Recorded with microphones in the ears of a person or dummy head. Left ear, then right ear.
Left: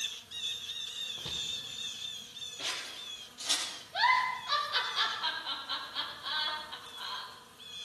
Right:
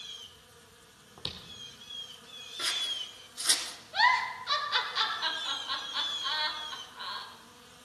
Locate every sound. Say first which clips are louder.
1.2 s footsteps: right 2 dB; 60° right (ahead or behind), 2.5 m
2.6 s scissors: right 7 dB; 65° right (ahead or behind), 3 m
3.9 s a giggle: right 2 dB; 45° right (ahead or behind), 3.5 m